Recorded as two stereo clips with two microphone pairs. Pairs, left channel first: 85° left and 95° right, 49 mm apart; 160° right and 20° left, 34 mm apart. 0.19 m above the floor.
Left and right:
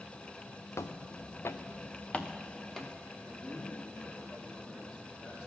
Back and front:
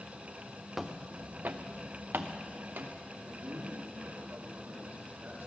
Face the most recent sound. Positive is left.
turn(degrees=20)